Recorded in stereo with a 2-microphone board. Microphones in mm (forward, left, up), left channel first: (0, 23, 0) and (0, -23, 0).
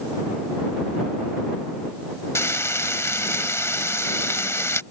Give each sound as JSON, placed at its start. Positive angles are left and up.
{"t": 2.4, "sound": "frying", "side_deg": 85}